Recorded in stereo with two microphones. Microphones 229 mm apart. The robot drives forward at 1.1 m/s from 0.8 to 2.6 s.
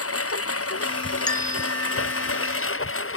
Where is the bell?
20° left (ahead or behind); by 2.5 s 10° left (ahead or behind).